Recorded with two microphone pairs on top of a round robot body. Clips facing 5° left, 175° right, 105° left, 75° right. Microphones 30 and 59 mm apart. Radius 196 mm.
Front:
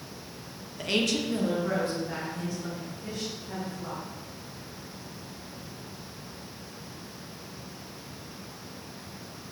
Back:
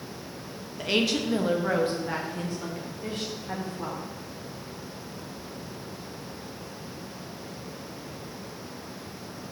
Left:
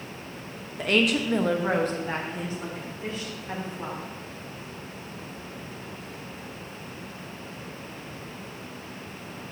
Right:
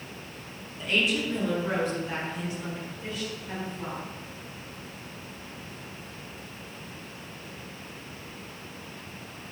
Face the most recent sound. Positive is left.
turn(degrees=160)